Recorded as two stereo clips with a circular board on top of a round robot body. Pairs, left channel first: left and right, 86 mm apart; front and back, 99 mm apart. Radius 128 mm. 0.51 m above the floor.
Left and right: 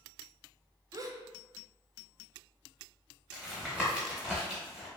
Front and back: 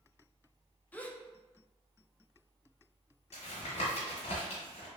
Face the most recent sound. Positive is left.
turn(degrees=-10)